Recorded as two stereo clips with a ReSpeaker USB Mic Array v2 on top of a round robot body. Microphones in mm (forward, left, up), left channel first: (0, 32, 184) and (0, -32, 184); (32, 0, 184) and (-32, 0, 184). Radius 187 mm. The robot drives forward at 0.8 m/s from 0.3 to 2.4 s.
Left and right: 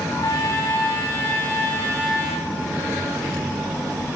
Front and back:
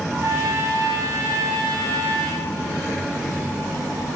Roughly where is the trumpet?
Behind left.